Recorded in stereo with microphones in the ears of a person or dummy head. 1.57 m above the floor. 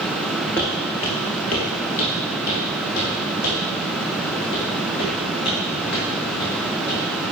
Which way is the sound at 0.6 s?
15° left (ahead or behind).